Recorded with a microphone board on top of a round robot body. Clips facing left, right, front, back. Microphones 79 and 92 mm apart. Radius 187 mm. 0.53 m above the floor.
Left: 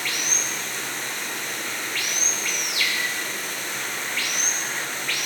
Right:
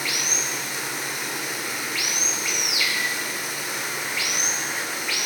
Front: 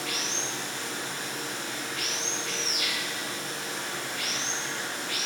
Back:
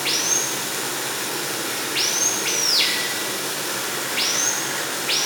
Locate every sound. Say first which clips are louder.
0.0 s running water: right 1 dB, back 6 dB; 170° right, 1.6 m